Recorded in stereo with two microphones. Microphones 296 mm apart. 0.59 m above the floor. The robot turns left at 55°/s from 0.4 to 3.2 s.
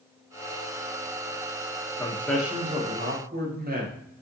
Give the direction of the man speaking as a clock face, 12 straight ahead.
11 o'clock.